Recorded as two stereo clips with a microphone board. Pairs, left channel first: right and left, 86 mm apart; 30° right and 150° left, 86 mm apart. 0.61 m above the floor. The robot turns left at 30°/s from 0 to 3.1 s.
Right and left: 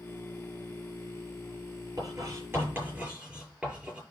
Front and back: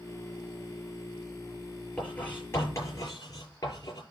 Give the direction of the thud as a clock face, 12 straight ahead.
I don't hear a thud.